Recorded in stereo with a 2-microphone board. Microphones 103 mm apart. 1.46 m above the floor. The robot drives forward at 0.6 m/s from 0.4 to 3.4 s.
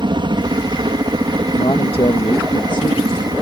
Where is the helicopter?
50° right (ahead or behind).